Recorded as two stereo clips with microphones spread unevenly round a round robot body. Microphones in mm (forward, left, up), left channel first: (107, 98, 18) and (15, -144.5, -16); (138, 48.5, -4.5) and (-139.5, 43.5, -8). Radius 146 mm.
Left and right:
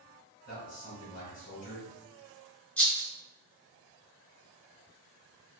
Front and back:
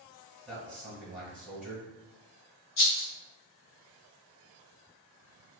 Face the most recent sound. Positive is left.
turn(degrees=-20)